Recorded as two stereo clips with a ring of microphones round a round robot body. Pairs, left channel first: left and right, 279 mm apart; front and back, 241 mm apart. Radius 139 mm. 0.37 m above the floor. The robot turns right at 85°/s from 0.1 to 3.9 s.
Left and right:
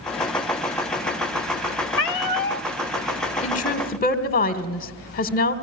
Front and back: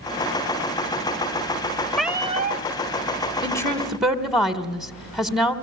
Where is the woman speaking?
50° left, 1.3 m; by 5.5 s 95° left, 1.3 m.